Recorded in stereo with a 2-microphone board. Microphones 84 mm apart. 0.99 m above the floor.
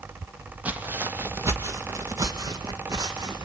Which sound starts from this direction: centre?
Footsteps, at 0.7 s.